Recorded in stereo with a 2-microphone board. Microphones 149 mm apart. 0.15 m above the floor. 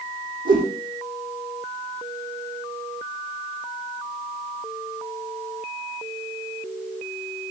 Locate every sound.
0.5 s a whoosh: 80° right, 6.5 m